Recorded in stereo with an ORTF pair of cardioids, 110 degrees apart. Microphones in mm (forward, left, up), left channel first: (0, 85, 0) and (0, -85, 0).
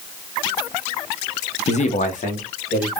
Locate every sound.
1.7 s a man speaking: 40° left, 0.6 m; by 2.9 s 50° left, 1.8 m